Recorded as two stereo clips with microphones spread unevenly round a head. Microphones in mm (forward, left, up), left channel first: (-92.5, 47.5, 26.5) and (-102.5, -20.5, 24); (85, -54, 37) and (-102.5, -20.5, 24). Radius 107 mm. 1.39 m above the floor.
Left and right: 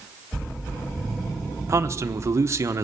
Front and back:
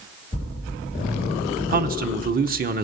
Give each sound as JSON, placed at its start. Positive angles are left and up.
{"t": 1.7, "sound": "a man speaking", "azimuth_deg": -150, "distance_m": 1.2}